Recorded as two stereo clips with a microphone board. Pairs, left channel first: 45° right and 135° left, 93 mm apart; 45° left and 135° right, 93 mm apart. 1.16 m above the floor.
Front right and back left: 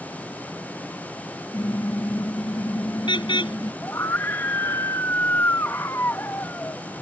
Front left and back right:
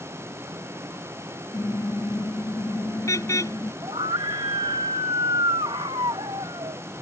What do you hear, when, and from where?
1.5 s a car horn: 10° right
3.8 s a scream: 105° right